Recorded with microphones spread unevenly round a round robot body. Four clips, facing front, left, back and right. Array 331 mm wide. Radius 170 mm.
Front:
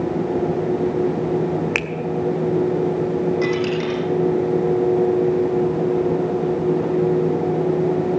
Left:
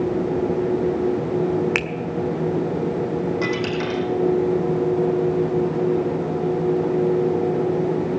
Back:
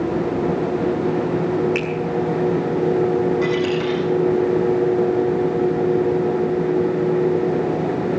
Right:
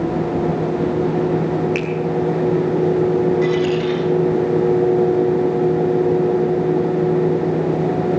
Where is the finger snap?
55° left, 1.5 m.